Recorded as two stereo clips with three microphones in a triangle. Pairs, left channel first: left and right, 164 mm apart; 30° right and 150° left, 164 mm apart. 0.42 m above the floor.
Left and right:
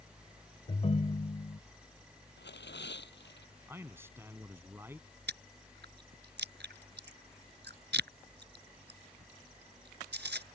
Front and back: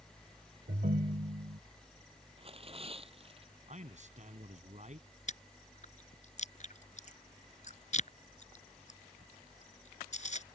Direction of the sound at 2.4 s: 95° left.